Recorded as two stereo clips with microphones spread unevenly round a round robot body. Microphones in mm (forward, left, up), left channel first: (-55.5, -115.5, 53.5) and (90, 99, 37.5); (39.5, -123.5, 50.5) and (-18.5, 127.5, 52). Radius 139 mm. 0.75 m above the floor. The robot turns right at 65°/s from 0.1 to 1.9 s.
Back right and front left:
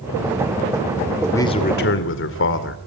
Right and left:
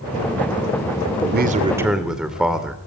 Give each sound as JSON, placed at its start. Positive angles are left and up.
{"t": 1.2, "sound": "a man speaking", "azimuth_deg": 145, "distance_m": 2.5}